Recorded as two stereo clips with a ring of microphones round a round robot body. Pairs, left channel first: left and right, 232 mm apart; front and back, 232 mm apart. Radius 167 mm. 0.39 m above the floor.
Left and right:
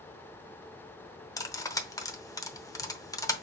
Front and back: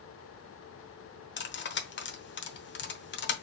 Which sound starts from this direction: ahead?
Cutlery clinking, at 1.4 s.